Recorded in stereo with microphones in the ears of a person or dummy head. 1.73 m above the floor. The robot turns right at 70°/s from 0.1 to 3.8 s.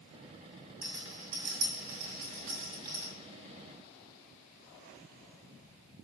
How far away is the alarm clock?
I don't hear an alarm clock.